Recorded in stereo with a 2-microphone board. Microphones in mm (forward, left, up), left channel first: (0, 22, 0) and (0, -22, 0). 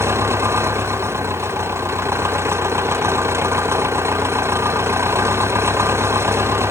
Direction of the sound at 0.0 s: 90° right.